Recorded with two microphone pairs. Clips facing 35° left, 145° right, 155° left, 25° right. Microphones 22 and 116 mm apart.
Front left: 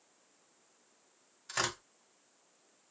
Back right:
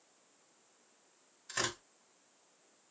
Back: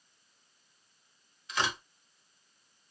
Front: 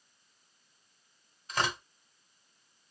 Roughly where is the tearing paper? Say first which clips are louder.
Front left 2 dB, front 1 dB; ahead right.